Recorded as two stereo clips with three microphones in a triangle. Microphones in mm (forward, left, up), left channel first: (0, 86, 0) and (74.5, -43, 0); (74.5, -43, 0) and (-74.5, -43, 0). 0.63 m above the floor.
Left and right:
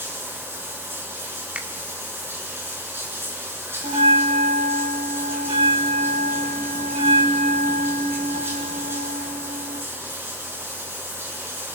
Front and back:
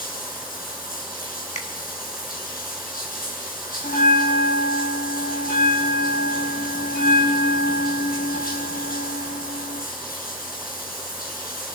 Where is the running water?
15° left, 4.5 m.